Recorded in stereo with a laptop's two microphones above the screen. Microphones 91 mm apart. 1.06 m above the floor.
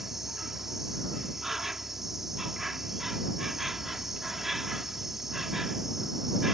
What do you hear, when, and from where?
0.0 s an insect: 5° right (ahead or behind)